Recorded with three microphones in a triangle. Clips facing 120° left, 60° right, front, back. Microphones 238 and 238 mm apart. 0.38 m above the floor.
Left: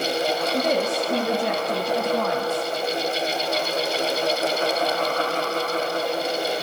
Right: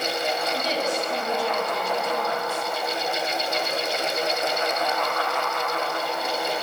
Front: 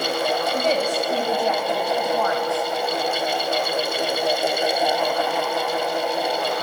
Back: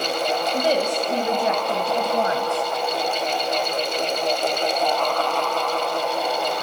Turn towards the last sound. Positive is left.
turn(degrees=125)